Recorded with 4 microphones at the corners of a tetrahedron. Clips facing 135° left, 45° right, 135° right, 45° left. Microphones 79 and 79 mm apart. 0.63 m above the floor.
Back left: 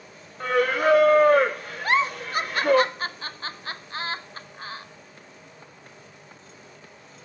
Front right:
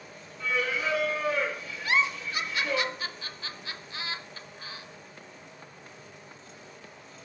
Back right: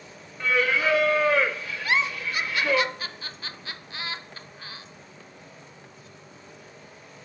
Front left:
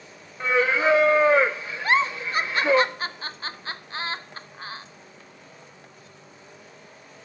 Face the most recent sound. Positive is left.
turn(degrees=95)